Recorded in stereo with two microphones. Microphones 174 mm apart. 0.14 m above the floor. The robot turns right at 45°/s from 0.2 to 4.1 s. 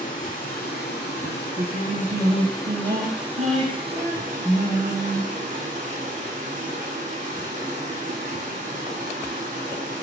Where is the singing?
145° right, 1.1 m; by 5.2 s 15° right, 1.1 m.